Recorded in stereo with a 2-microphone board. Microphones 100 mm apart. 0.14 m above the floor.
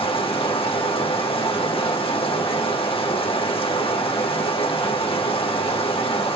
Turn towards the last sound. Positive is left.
turn(degrees=70)  # may be behind; listen again after turning